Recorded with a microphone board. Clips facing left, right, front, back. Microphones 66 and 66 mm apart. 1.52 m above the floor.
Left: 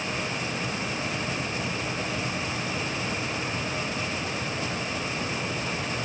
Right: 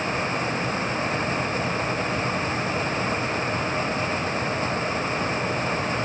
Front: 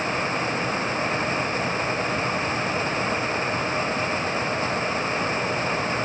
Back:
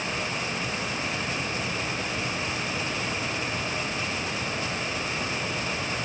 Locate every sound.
Only background noise.